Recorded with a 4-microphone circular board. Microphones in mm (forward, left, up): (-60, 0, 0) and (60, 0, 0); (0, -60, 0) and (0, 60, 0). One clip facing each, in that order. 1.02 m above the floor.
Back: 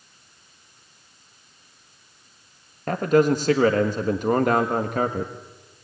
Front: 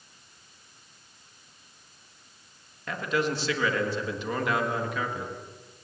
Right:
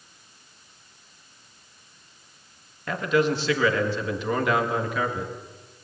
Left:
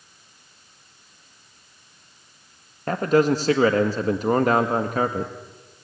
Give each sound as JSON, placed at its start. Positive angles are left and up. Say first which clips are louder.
{"t": 2.9, "sound": "a man speaking", "louder": "back 10 dB, left 4 dB", "azimuth_deg": 140, "distance_m": 1.6}